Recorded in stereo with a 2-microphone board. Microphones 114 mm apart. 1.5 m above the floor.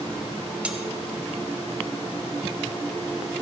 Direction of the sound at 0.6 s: 10° right (ahead or behind).